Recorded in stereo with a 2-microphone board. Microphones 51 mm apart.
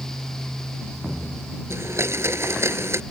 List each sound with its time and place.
1.7 s a blender: 55° right (ahead or behind)